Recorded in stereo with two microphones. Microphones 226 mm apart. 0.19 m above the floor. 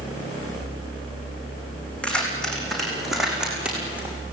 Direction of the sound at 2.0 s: 5° left (ahead or behind).